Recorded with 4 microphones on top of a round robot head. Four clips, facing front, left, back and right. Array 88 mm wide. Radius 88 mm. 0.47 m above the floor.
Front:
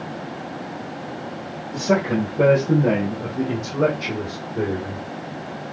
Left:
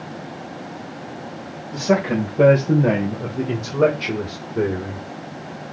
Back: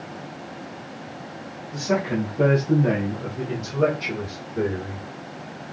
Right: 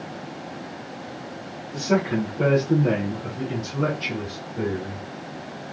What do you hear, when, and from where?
1.7 s a man speaking: 65° left, 3 m; by 5.0 s 95° left, 2 m